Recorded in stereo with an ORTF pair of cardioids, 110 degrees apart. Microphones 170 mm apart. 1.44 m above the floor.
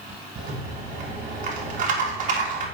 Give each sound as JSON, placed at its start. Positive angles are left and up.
{"t": 0.4, "sound": "a rattle", "azimuth_deg": -50, "distance_m": 1.8}